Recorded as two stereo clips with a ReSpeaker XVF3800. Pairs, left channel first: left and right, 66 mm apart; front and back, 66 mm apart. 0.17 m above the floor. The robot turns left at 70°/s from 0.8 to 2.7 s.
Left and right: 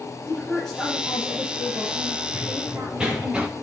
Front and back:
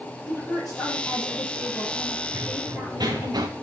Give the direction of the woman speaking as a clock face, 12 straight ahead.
12 o'clock.